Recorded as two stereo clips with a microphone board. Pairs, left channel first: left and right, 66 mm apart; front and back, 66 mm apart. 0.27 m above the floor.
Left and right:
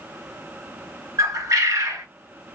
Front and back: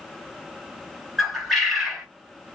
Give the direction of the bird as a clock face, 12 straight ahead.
3 o'clock.